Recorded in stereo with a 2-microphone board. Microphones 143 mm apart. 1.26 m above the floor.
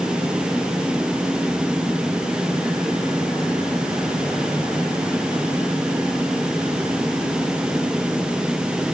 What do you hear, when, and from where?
Only background noise.